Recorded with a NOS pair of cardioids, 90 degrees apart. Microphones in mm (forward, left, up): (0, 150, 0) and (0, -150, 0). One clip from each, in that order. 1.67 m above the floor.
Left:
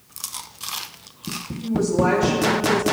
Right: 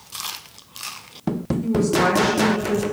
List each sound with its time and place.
1.6 s a woman speaking: 20° right, 1.5 m; by 2.8 s 35° right, 2 m